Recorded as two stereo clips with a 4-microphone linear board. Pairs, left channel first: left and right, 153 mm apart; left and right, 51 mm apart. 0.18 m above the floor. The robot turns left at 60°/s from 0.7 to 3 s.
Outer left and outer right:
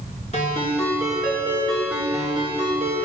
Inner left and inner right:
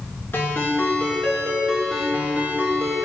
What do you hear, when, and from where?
0.3 s a ringtone: 60° left, 1.8 m; by 3.0 s 75° right, 1.8 m